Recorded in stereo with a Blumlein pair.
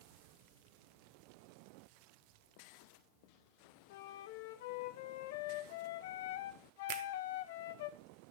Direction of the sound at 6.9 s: 45° right.